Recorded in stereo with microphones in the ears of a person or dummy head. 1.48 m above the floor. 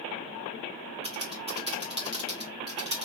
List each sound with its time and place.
1.0 s typing on a keyboard: 30° right (ahead or behind), 0.8 m